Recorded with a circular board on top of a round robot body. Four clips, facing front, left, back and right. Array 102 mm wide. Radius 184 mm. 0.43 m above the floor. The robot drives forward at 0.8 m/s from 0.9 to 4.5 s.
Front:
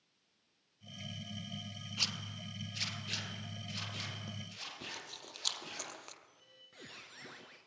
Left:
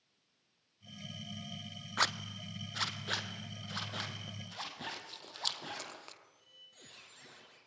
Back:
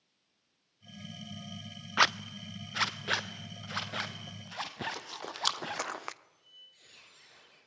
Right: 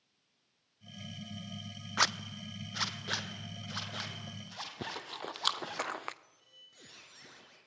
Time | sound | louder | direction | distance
2.0 | a zipper | right 2 dB, back 19 dB | 170° right | 0.5 m
4.8 | chewing | right 5 dB, back 9 dB | 135° right | 0.7 m
6.2 | a squeak | even, front 2 dB | 5° right | 3 m